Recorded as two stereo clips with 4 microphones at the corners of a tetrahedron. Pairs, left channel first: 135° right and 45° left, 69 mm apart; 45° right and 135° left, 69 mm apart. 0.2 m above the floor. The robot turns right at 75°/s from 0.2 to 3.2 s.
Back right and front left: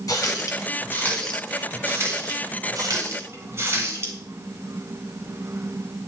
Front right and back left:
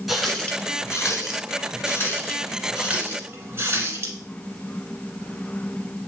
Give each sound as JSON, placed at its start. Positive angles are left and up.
{"t": 0.1, "sound": "a running tap", "azimuth_deg": -135, "distance_m": 1.3}